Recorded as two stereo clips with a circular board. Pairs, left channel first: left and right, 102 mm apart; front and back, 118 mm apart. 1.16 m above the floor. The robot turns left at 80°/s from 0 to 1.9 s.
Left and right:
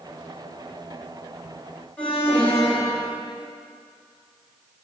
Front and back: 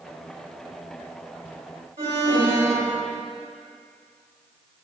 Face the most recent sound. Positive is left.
turn(degrees=165)